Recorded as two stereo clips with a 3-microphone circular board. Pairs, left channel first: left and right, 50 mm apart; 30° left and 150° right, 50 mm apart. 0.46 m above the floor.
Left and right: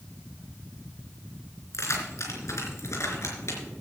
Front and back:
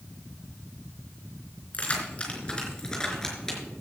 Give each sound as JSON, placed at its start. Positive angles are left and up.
{"t": 1.7, "sound": "keys jangling", "azimuth_deg": 90, "distance_m": 3.5}